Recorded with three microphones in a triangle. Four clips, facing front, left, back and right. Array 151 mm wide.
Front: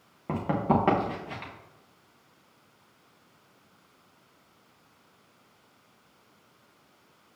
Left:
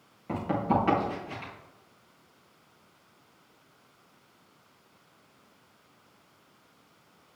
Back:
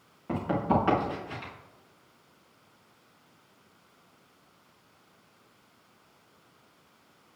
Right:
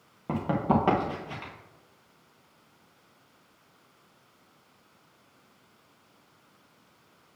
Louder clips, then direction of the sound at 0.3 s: Right 1 dB, front 1 dB; 45° right.